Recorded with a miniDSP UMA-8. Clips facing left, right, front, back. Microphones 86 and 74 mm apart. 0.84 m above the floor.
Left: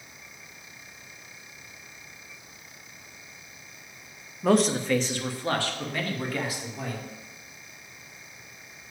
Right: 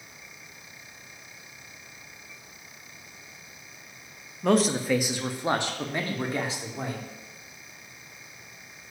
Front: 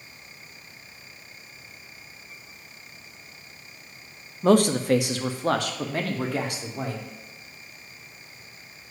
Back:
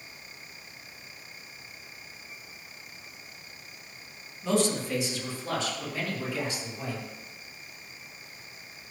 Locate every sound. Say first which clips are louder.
4.4 s a man speaking: left 1 dB, front 8 dB; 5° left, 0.6 m; by 7.0 s 30° right, 1.9 m